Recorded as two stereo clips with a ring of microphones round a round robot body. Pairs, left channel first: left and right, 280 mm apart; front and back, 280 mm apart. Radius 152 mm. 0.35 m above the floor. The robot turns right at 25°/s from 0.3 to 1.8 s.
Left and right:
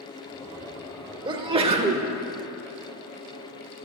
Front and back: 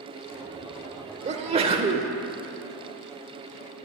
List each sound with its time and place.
1.2 s a sneeze: 145° right, 0.8 m; by 2.1 s 130° right, 0.8 m